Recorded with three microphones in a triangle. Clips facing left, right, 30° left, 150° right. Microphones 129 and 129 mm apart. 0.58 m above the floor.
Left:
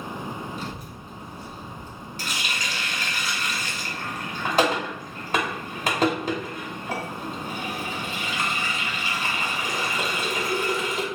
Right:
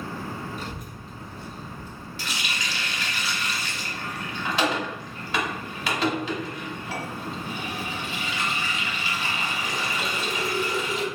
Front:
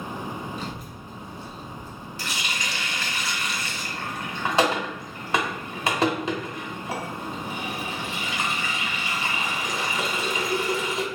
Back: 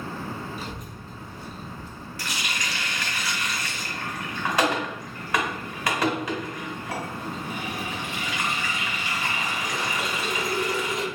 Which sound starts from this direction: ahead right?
A child speaking, at 0.6 s.